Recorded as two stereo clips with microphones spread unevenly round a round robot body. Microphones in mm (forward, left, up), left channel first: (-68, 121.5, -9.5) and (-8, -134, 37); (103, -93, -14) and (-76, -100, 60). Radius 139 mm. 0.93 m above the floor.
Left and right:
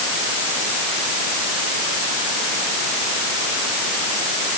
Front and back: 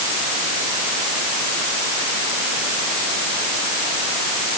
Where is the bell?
I don't hear a bell.